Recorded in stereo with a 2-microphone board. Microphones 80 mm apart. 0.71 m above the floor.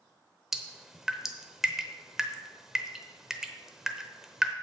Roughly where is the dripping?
Centre.